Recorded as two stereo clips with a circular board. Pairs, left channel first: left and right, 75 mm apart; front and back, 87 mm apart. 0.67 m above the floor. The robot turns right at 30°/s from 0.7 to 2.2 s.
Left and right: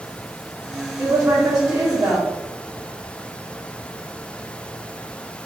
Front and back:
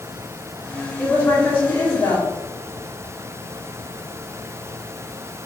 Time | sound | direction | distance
1.0 | a woman speaking | 75° right | 1.3 m